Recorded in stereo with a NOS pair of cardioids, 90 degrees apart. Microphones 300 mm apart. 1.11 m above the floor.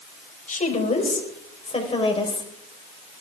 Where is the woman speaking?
25° left, 5 m; by 2.5 s 15° left, 4.5 m.